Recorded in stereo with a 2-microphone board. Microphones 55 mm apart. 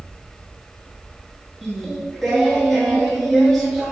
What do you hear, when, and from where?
1.6 s singing: centre (ahead or behind), 0.8 m